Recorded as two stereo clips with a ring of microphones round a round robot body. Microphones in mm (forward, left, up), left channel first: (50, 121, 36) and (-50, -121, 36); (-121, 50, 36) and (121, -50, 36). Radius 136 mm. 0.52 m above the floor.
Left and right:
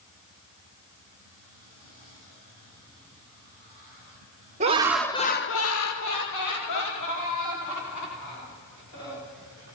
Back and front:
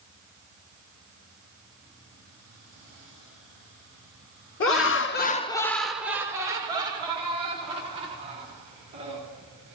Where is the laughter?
175° right, 1.2 m; by 9.2 s 45° left, 6 m.